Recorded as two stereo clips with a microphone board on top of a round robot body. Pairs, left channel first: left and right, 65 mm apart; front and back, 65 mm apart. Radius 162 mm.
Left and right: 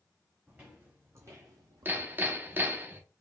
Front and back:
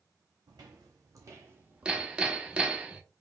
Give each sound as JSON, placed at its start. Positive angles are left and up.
{"t": 0.5, "sound": "footsteps", "azimuth_deg": -160, "distance_m": 1.6}
{"t": 1.9, "sound": "hammering", "azimuth_deg": -115, "distance_m": 1.1}